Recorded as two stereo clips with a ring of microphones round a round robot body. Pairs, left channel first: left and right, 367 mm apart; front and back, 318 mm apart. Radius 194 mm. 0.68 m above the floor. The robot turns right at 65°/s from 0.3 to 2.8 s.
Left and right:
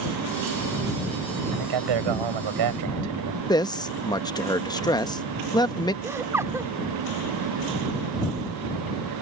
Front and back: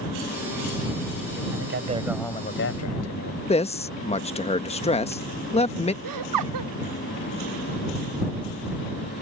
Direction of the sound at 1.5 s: 130° right.